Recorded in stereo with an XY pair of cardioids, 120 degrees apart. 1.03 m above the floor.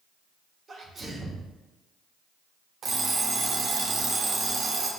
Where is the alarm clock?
40° right, 1.3 m.